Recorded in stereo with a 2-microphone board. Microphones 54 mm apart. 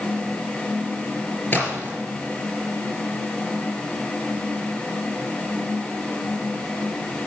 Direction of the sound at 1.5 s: 35° left (ahead or behind).